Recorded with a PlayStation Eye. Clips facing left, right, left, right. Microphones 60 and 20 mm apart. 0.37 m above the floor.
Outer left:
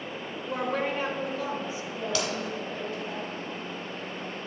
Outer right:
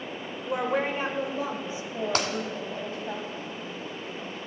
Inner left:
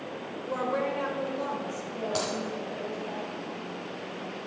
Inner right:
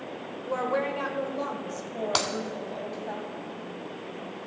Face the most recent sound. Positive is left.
turn(degrees=-50)  # may be behind; listen again after turning